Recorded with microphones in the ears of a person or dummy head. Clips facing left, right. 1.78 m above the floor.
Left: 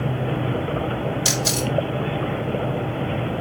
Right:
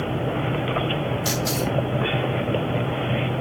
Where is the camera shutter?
45° left (ahead or behind), 3 m.